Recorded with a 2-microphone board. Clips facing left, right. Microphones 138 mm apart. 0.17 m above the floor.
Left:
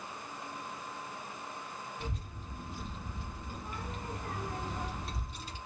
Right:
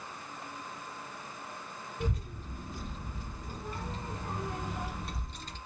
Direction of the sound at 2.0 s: 45° right (ahead or behind).